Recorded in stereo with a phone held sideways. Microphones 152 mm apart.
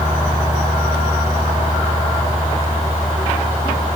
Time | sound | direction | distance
0.0 | a fan | 25° right (ahead or behind) | ?